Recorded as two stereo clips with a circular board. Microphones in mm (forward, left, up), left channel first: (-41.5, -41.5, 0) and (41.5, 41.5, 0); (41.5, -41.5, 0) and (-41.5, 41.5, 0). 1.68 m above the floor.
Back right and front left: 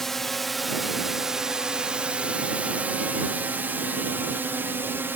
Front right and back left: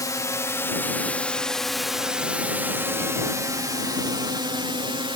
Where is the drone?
50° right; by 5.2 s 110° left.